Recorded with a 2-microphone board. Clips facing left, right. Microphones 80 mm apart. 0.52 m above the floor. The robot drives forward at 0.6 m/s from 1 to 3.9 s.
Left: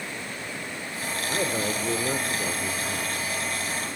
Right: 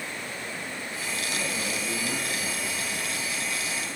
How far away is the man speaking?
About 2 m.